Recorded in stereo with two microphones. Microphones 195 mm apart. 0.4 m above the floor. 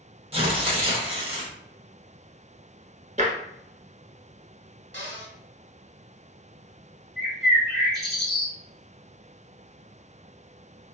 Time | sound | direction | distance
0.3 | tearing paper | 30° right (ahead or behind) | 0.7 m
3.2 | tapping | 35° right (ahead or behind) | 0.9 m
4.9 | a cupboard door | 75° right (ahead or behind) | 0.9 m
7.2 | a bird | centre (ahead or behind) | 1.5 m